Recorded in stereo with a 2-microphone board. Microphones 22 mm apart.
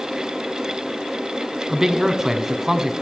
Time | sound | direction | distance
1.7 | a man speaking | 25° right (ahead or behind) | 1.2 m